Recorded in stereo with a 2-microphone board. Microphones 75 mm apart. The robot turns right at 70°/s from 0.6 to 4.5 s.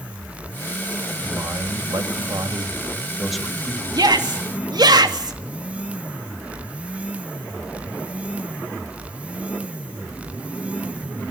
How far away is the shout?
About 2.5 m.